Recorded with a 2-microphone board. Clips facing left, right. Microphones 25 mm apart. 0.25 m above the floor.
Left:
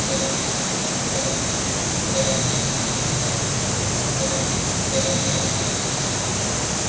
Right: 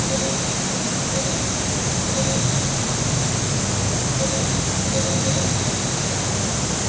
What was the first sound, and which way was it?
Only background noise.